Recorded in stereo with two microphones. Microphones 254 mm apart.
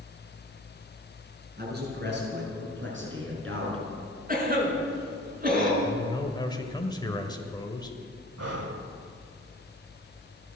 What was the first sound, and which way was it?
A man speaking, 40° right (ahead or behind).